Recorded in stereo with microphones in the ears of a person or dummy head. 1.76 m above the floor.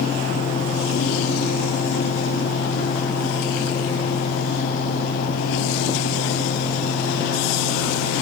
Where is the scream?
I don't hear a scream.